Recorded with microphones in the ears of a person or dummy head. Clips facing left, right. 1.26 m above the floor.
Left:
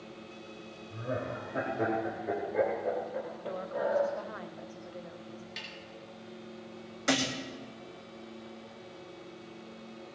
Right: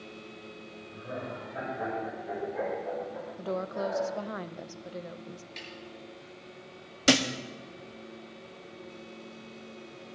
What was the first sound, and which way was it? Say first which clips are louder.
Laughter: left 3 dB; 50° left (ahead or behind).